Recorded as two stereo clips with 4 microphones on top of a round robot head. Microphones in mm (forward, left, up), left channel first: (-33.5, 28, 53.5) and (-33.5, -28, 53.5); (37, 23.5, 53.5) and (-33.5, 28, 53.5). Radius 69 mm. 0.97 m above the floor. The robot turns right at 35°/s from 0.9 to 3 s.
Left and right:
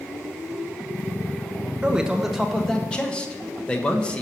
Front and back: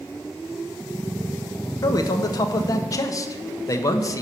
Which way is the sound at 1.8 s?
20° right.